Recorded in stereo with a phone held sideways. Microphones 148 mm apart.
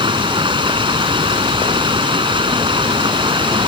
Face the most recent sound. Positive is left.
turn(degrees=-35)  # may be behind; listen again after turning